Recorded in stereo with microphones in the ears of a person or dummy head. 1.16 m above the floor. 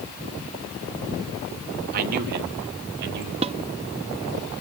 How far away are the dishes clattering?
About 1.0 m.